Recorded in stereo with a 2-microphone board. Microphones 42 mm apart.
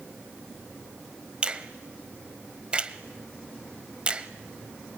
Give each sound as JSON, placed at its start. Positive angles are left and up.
{"t": 1.4, "sound": "a finger snap", "side_deg": -25, "distance_m": 1.0}